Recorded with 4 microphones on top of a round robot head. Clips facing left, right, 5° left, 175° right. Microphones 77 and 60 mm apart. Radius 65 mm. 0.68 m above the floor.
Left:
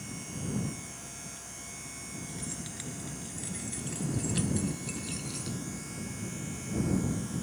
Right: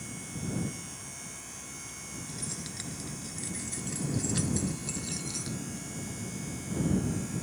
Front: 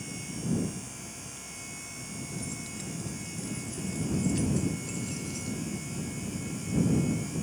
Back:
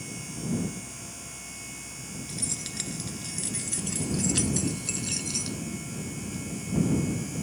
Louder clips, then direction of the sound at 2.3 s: Right 1 dB, even; 170° right.